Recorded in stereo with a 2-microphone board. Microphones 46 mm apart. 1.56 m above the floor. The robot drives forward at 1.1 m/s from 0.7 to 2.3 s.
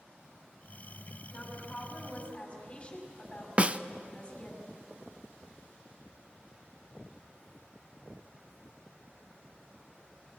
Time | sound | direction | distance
1.3 | a woman speaking | 25° left (ahead or behind) | 6.5 m
3.6 | a snare drum | 25° right (ahead or behind) | 0.5 m